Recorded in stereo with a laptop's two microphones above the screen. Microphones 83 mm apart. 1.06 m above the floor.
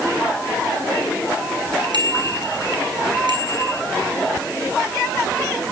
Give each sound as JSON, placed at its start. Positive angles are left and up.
{"t": 1.9, "sound": "a bicycle bell", "side_deg": -70, "distance_m": 8.0}